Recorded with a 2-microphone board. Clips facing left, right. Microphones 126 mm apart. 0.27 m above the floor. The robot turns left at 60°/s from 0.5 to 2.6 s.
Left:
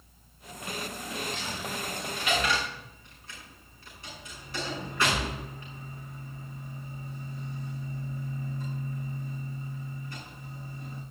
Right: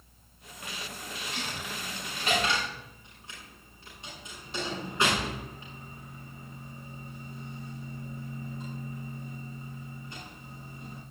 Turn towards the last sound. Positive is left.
turn(degrees=-20)  # may be behind; listen again after turning